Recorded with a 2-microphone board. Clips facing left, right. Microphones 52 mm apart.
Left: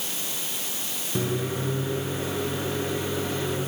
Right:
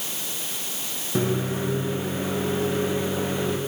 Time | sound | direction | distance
1.1 | a microwave | 20° right (ahead or behind) | 6.5 m